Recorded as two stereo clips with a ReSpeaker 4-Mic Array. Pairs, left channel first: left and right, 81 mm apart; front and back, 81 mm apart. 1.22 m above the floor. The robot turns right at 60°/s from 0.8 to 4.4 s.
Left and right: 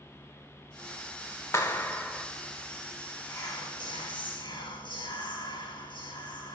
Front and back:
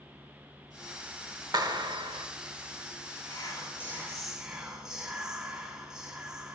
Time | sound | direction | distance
1.5 | a clap | 145° left | 0.9 m
3.3 | whispering | 30° left | 2 m